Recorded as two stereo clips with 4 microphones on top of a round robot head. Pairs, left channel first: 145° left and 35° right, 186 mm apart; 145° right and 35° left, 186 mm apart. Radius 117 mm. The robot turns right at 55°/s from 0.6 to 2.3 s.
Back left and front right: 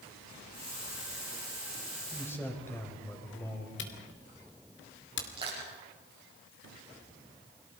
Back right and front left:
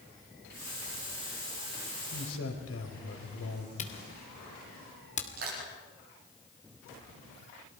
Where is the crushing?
30° left, 9 m.